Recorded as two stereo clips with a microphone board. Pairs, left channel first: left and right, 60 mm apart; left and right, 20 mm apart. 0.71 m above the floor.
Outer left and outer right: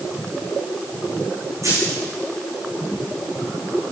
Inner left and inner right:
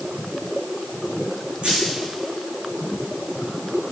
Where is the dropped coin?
60° right (ahead or behind), 6 m.